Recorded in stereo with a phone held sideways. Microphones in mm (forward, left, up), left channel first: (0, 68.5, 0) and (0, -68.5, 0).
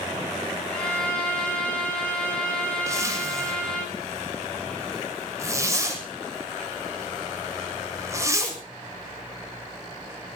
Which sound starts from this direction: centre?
A violin, at 0.7 s.